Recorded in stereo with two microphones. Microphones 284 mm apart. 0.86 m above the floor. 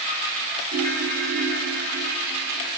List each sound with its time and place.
0.7 s a ringtone: 75° right (ahead or behind), 1.5 m